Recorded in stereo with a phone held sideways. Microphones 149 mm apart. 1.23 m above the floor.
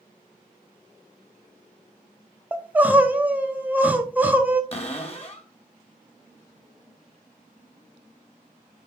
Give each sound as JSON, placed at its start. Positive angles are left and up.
{"t": 2.5, "sound": "crying", "side_deg": -10, "distance_m": 0.7}
{"t": 4.7, "sound": "a cupboard door", "side_deg": 40, "distance_m": 1.1}